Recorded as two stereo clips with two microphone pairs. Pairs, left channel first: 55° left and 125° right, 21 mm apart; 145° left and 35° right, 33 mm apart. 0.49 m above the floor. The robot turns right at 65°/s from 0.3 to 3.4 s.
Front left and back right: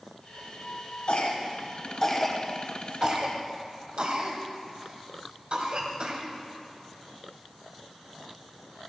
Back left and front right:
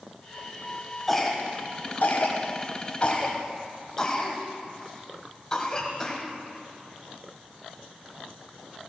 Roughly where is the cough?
Ahead left.